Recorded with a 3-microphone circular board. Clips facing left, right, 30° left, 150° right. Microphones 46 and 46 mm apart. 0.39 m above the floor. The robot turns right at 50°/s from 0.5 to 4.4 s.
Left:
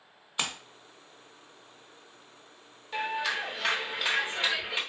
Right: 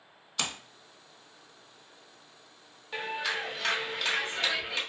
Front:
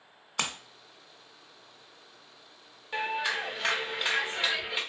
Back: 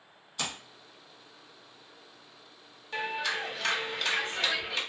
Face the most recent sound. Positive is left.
turn(degrees=70)